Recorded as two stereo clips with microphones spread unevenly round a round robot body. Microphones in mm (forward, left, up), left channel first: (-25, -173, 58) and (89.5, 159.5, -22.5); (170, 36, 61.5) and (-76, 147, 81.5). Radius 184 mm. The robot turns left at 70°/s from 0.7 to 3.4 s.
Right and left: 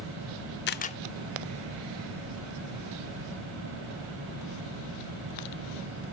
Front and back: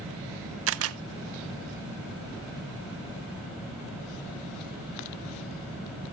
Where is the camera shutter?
175° right, 0.5 m; by 1.0 s 165° left, 0.5 m.